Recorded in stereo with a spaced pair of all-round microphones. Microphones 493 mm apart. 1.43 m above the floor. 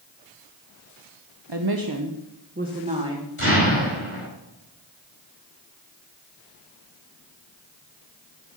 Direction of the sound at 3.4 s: 85° left.